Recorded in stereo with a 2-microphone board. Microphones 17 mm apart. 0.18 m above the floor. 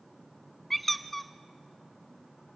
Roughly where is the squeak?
Centre.